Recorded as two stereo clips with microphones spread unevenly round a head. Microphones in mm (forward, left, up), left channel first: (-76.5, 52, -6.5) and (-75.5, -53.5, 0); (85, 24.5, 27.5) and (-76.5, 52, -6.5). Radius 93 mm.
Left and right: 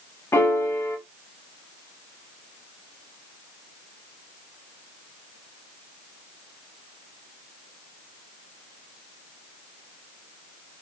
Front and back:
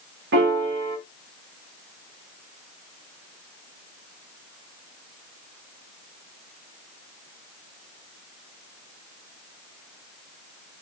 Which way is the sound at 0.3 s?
155° left.